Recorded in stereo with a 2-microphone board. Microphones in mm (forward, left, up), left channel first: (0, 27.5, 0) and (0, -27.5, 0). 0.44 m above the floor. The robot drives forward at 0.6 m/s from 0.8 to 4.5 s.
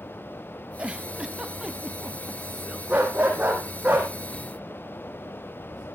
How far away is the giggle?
About 0.9 m.